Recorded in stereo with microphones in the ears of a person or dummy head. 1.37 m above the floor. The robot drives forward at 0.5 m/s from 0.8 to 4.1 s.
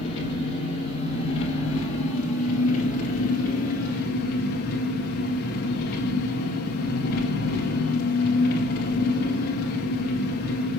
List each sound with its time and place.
0.0 s an engine running: 30° left (ahead or behind), 3.5 m; by 10.8 s 55° left (ahead or behind), 2 m